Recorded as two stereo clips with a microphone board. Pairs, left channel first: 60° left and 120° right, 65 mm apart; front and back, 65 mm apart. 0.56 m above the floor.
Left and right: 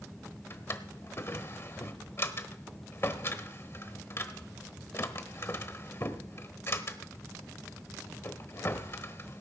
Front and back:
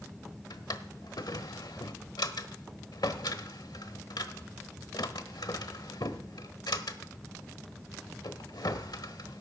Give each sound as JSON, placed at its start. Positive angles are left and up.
{"t": 0.5, "sound": "a drawer", "azimuth_deg": 10, "distance_m": 1.0}